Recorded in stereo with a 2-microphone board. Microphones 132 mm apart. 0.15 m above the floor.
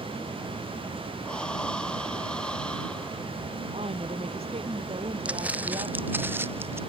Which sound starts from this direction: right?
A woman speaking, at 3.7 s.